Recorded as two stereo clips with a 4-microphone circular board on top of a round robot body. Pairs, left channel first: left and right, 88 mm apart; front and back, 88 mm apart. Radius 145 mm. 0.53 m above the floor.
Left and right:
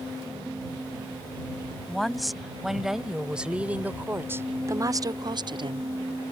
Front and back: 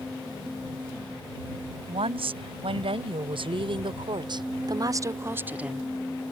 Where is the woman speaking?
Straight behind; by 5.9 s 95° right.